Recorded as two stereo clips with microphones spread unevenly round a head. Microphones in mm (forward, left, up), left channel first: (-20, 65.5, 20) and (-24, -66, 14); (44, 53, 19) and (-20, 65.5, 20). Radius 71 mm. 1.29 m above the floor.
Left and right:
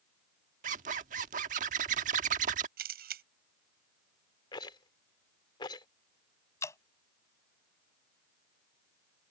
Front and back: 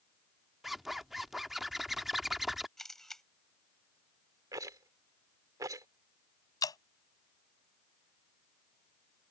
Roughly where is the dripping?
Ahead.